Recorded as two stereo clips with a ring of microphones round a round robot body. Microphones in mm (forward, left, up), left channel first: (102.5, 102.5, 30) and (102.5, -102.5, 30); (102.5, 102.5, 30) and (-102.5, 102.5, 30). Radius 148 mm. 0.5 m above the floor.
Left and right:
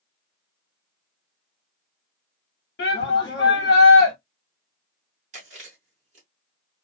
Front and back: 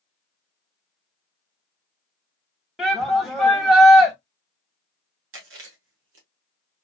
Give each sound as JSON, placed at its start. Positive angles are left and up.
{"t": 2.8, "sound": "a shout", "azimuth_deg": 90, "distance_m": 1.3}
{"t": 5.3, "sound": "chewing", "azimuth_deg": -150, "distance_m": 1.0}